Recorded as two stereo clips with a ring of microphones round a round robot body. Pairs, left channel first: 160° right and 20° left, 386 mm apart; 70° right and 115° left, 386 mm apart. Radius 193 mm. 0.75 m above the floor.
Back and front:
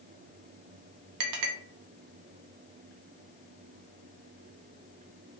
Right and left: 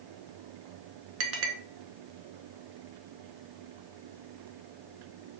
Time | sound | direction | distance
1.2 | a clink | 60° left | 0.6 m